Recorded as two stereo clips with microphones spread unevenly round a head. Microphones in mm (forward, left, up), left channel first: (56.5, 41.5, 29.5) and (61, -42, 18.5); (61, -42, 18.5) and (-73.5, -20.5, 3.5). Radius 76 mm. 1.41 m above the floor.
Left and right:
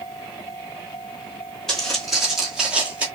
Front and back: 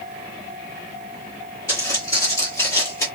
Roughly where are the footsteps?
Ahead left.